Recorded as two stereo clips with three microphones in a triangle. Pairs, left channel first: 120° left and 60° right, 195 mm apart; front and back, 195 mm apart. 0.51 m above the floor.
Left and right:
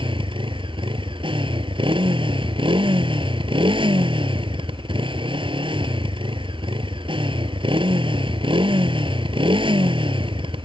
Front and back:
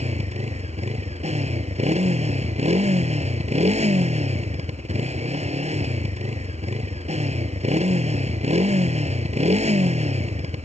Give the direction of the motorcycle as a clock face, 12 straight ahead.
4 o'clock.